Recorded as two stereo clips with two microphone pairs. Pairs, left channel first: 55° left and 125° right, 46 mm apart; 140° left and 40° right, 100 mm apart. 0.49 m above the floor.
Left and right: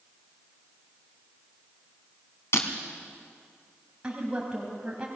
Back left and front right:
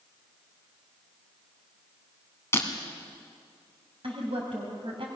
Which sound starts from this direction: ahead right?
A woman speaking, at 4.0 s.